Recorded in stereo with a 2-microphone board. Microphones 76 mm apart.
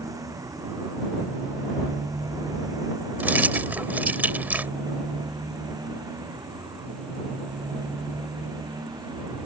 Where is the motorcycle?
55° right (ahead or behind); by 9.4 s 65° right (ahead or behind).